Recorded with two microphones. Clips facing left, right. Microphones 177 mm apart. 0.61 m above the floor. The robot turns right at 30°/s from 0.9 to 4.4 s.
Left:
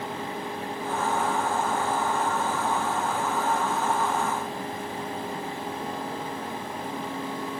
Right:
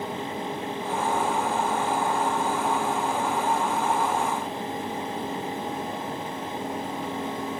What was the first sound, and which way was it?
Only background noise.